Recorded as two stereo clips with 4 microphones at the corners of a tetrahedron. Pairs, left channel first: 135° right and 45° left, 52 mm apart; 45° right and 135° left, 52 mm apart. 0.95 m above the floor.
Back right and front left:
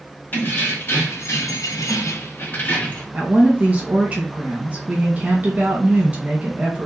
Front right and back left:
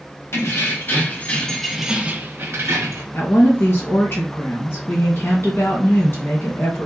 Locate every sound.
0.3 s keys jangling: 80° right, 1.1 m; by 3.0 s 160° left, 0.9 m
3.1 s a woman speaking: 15° right, 1.4 m